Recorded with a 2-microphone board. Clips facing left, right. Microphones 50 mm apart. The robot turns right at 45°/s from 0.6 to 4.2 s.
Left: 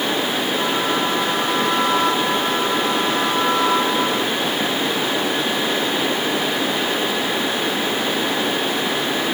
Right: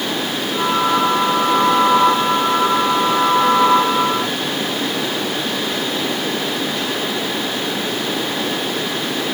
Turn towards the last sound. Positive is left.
No sound to turn to.